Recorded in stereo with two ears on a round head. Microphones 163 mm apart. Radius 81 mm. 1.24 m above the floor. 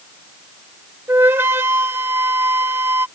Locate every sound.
1.1 s a flute: 10° right (ahead or behind)